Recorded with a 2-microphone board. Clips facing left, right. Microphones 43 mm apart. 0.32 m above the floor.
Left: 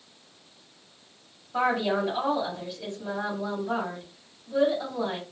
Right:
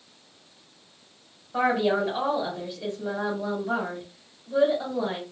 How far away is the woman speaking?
About 1.4 m.